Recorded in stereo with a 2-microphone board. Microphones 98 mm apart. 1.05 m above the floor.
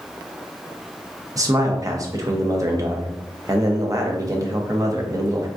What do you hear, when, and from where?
1.4 s a man speaking: 35° right (ahead or behind), 0.6 m